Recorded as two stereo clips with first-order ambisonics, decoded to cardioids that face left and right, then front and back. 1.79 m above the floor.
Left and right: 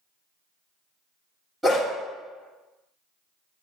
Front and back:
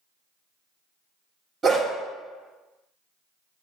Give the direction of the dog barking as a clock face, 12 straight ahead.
5 o'clock.